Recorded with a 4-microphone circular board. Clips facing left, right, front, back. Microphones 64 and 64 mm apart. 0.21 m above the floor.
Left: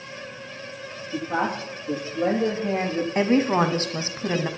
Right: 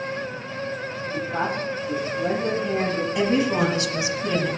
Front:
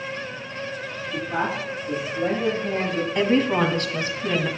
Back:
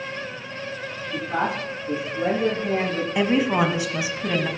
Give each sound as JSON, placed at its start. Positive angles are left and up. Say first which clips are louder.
{"t": 1.1, "sound": "a man speaking", "louder": "left 1 dB, back 1 dB", "azimuth_deg": 115, "distance_m": 10.0}
{"t": 3.1, "sound": "a woman speaking", "louder": "left 2 dB, even", "azimuth_deg": 105, "distance_m": 1.3}